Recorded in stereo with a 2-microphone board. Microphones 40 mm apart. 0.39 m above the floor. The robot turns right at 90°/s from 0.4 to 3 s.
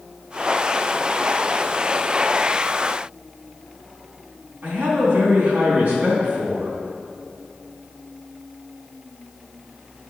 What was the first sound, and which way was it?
A man speaking, 65° right (ahead or behind).